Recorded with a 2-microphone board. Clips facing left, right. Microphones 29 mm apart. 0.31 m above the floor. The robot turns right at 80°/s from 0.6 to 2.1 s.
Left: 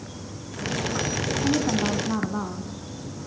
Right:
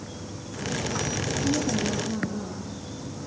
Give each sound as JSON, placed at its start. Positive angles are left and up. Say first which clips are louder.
{"t": 1.4, "sound": "a woman speaking", "louder": "left 3 dB", "azimuth_deg": 45, "distance_m": 3.5}